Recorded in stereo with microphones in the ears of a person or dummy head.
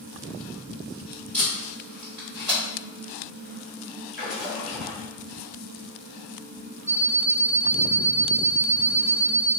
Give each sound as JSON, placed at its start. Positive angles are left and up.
{"t": 1.3, "sound": "tape being pulled", "side_deg": 10, "distance_m": 1.4}
{"t": 4.1, "sound": "a splash", "side_deg": 0, "distance_m": 1.4}
{"t": 6.9, "sound": "an alarm clock", "side_deg": 25, "distance_m": 1.1}